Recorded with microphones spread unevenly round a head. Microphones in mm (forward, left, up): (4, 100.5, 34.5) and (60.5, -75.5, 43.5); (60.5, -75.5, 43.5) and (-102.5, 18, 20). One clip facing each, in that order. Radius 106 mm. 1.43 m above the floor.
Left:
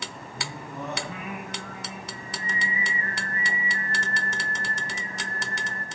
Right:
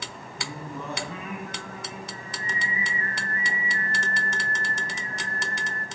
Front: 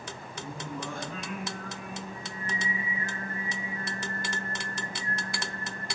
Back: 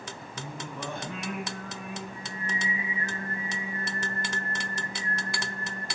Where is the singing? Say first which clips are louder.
Right 1 dB, front 1 dB; straight behind, 6.5 m.